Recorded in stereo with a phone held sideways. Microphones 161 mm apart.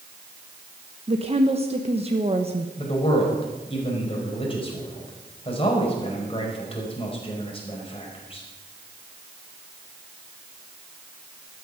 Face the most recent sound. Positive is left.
turn(degrees=35)  # may be behind; listen again after turning